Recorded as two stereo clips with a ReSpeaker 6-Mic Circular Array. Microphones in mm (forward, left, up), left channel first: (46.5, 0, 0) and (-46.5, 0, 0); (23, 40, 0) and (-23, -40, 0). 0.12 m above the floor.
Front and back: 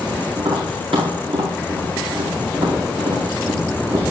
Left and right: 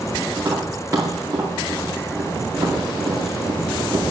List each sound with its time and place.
0.4 s tapping: straight behind, 4.5 m